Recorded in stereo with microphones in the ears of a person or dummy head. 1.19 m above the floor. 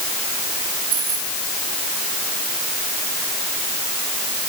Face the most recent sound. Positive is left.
turn(degrees=-25)  # may be behind; listen again after turning